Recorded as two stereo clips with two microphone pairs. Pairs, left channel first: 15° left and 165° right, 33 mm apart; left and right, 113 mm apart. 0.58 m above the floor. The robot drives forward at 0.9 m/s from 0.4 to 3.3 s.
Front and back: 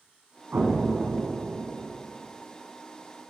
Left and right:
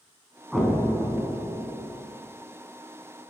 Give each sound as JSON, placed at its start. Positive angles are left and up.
{"t": 0.5, "sound": "an explosion", "azimuth_deg": 175, "distance_m": 1.5}